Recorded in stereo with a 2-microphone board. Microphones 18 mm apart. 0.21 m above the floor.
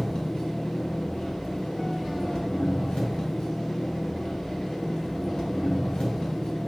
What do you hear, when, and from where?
0.0 s an engine running: 70° left (ahead or behind), 0.7 m